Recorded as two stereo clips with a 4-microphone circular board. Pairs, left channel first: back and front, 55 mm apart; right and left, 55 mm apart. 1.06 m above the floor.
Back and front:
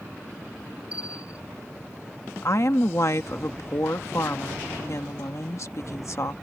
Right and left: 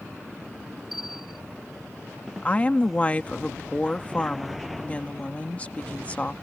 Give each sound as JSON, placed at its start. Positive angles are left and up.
{"t": 0.9, "sound": "a bell", "azimuth_deg": 175}
{"t": 2.4, "sound": "a woman speaking", "azimuth_deg": -155}